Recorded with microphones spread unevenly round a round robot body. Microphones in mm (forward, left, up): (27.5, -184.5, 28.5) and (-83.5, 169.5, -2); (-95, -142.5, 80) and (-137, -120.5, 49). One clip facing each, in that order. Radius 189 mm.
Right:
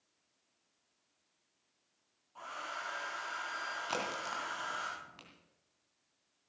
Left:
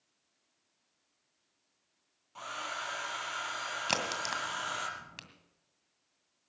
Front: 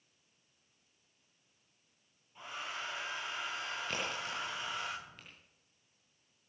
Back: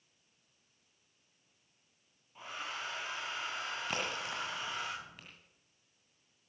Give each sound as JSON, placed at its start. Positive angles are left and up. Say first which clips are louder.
{"t": 2.4, "sound": "a hair dryer", "louder": "left 3 dB, even", "azimuth_deg": 60, "distance_m": 4.0}
{"t": 3.9, "sound": "a crack", "louder": "left 2 dB, back 2 dB", "azimuth_deg": 70, "distance_m": 2.0}